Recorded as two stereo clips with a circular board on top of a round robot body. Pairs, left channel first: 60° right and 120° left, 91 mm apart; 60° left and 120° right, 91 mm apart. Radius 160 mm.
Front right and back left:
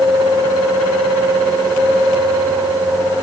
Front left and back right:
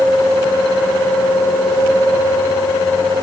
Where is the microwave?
I don't hear a microwave.